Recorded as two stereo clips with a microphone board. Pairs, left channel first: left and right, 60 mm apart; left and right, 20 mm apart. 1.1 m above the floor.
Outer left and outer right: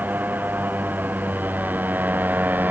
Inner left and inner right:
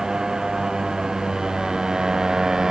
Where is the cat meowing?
No cat meowing in this recording.